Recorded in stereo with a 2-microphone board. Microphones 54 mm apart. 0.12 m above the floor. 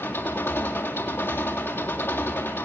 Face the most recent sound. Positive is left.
turn(degrees=45)  # may be behind; listen again after turning